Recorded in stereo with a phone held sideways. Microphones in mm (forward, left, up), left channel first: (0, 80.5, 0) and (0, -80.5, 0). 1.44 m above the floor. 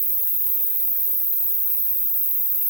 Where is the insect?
65° right (ahead or behind), 1.7 m.